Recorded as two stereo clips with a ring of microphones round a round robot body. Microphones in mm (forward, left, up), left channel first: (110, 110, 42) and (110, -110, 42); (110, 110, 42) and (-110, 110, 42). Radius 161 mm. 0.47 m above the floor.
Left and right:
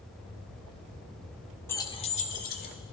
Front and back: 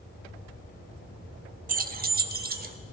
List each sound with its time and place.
1.7 s keys jangling: 165° left, 0.6 m; by 2.8 s 135° left, 1.2 m